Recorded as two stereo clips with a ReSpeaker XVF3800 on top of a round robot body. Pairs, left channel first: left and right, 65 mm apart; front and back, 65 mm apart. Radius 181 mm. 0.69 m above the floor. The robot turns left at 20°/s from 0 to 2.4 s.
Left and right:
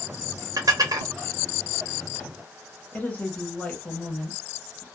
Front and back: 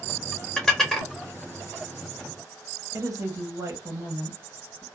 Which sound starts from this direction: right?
Dishes clattering, at 0.6 s.